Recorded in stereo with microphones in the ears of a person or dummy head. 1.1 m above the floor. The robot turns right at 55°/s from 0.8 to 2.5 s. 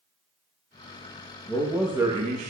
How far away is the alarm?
I don't hear an alarm.